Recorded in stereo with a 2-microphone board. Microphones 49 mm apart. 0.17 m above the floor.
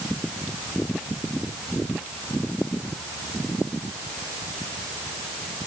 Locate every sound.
Only background noise.